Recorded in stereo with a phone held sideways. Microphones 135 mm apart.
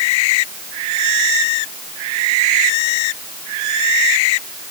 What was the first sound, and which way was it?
Only background noise.